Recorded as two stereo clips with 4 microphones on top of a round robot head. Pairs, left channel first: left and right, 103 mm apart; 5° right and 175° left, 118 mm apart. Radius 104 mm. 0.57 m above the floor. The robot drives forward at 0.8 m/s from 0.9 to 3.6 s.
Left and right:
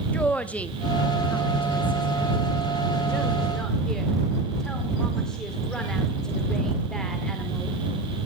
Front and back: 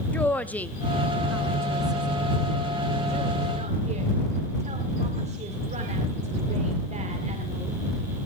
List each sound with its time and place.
0.1 s a woman speaking: 45° left, 1.0 m; by 7.8 s 175° left, 2 m